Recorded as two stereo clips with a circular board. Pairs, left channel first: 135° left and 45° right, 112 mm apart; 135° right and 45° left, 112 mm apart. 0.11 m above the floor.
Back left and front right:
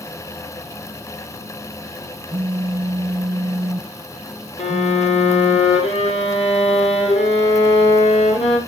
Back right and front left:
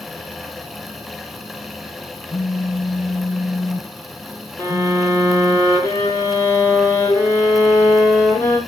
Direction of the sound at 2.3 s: 85° right.